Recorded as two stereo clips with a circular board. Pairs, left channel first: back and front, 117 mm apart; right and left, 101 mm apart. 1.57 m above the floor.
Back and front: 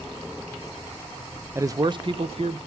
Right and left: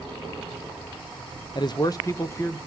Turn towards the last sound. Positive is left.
turn(degrees=-25)